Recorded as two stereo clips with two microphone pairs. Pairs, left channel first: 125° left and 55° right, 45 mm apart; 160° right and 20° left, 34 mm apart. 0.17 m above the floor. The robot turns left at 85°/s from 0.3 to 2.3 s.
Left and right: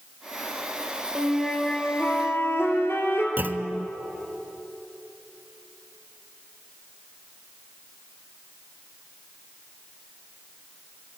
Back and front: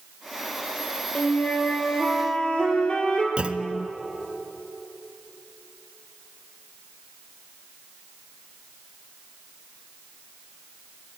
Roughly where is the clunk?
Ahead right.